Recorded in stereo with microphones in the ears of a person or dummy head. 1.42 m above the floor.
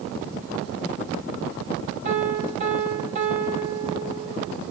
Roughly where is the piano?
Right.